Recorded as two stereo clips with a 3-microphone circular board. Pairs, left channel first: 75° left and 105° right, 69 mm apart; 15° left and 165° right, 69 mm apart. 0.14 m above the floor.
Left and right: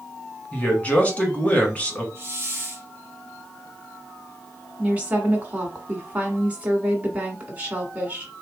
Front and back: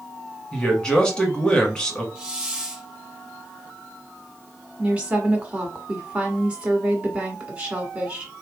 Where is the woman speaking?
135° right, 1.3 m.